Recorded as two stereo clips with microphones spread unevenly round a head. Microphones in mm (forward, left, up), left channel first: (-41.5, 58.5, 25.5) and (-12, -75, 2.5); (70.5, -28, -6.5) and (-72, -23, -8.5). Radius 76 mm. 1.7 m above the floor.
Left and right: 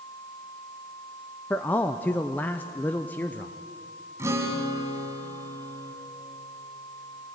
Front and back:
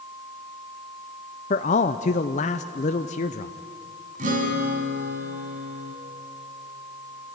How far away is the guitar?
About 3.5 m.